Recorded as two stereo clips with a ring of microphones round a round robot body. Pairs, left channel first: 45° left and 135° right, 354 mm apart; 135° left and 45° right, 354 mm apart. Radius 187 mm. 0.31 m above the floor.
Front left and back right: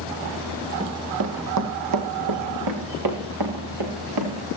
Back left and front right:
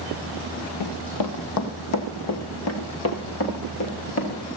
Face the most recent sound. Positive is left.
turn(degrees=-170)